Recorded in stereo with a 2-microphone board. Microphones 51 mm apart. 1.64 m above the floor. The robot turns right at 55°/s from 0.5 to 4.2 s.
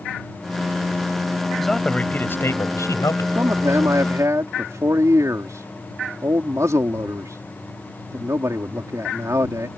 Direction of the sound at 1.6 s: Straight ahead.